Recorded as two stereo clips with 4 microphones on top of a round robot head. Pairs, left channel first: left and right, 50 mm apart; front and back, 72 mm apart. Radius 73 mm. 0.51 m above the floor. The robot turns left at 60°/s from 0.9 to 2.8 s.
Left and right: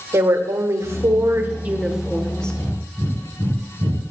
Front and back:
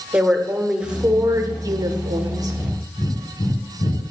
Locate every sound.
0.1 s a woman speaking: 100° right, 1.4 m; by 2.6 s 160° left, 1.4 m
2.5 s breathing: 20° right, 3.5 m; by 4.0 s 35° right, 3.5 m